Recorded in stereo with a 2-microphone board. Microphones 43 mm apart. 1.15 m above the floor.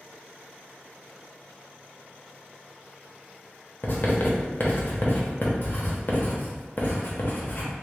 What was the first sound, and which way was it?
Writing, 45° left (ahead or behind).